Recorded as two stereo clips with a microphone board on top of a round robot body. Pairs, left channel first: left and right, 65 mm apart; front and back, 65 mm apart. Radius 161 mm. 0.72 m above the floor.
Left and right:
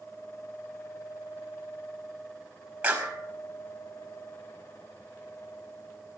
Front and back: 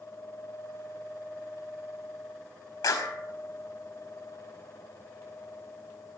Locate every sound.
2.8 s a clap: 15° right, 5 m